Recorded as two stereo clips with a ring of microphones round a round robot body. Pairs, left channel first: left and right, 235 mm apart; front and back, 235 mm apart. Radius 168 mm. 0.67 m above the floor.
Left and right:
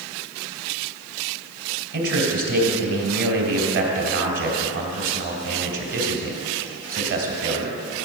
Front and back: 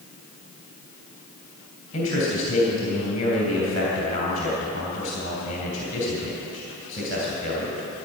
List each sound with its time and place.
1.9 s a man speaking: 70° right, 3 m